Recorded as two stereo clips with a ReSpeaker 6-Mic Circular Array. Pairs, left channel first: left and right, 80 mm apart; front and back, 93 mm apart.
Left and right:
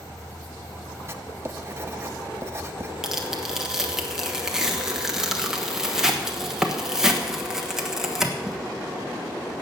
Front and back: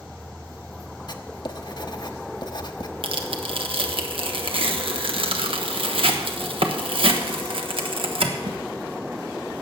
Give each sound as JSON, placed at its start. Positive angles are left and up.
{"t": 1.1, "sound": "writing", "azimuth_deg": -35, "distance_m": 0.7}
{"t": 3.0, "sound": "tearing paper", "azimuth_deg": -175, "distance_m": 1.3}